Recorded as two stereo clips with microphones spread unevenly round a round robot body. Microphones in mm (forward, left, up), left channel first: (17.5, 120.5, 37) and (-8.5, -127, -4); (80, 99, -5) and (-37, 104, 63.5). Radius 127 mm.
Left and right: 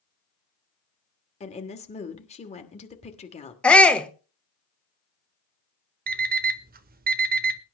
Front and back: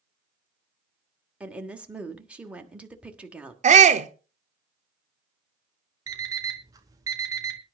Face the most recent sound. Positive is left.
turn(degrees=-90)